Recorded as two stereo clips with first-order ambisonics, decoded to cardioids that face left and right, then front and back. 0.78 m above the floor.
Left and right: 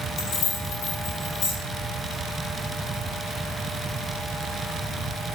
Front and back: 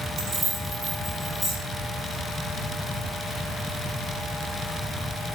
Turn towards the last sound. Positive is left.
turn(degrees=85)